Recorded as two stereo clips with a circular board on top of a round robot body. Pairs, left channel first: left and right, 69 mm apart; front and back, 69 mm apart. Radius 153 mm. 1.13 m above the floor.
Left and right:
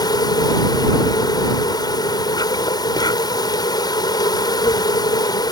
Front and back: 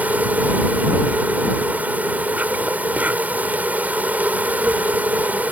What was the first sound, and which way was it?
An insect, 115° left.